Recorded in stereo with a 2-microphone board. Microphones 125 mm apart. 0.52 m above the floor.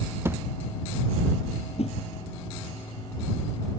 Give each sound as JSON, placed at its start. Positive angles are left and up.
{"t": 0.2, "sound": "a thud", "side_deg": -20}
{"t": 1.8, "sound": "a whoosh", "side_deg": 55}